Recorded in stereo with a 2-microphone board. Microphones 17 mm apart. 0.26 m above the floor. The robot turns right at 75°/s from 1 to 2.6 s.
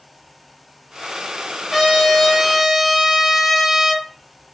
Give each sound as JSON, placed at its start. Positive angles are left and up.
{"t": 1.7, "sound": "a trumpet", "side_deg": -25, "distance_m": 1.4}